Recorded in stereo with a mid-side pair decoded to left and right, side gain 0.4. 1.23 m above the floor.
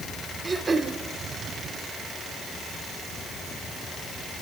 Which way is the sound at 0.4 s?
35° right.